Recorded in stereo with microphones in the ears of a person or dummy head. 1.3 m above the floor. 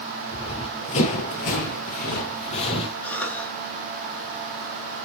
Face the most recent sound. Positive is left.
turn(degrees=10)  # may be behind; listen again after turning